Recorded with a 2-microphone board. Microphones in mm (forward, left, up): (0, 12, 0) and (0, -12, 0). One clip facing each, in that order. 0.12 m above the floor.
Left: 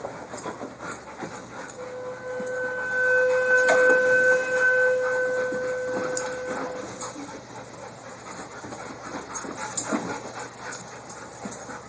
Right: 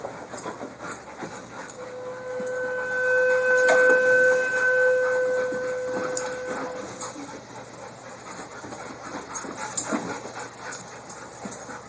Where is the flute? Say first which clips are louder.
Even; 30° left (ahead or behind), 1.3 m.